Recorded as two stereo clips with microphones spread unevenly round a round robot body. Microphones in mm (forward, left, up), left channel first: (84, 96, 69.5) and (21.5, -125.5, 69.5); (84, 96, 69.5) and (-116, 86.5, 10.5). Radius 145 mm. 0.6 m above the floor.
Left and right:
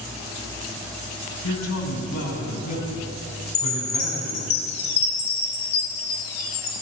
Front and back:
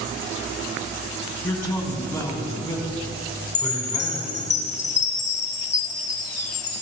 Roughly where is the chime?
Ahead left.